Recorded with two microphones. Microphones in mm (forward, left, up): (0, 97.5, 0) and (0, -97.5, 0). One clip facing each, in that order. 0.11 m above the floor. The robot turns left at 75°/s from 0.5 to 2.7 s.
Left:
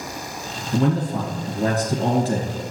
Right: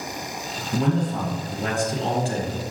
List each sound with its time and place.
0.7 s a man speaking: 170° right, 1.6 m; by 2.6 s 50° left, 1.6 m